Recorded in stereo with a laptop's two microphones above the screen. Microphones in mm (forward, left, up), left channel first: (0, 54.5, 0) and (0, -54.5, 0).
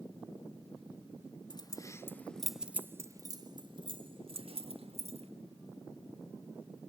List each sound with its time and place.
1.5 s keys jangling: 40° left (ahead or behind), 1.6 m; by 5.3 s 65° right (ahead or behind), 3 m